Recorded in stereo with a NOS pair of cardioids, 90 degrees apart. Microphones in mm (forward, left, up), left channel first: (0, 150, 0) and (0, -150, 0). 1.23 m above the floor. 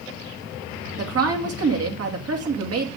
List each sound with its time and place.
1.0 s a woman speaking: 55° right, 2.5 m